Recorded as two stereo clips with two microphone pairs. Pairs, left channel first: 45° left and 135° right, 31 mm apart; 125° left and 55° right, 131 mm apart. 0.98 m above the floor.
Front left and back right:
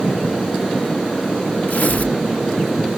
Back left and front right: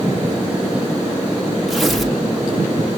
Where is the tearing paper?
35° left, 2 m.